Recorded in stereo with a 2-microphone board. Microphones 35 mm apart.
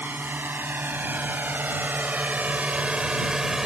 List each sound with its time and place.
0.0 s a drone: 75° right (ahead or behind); by 3.7 s 15° right (ahead or behind)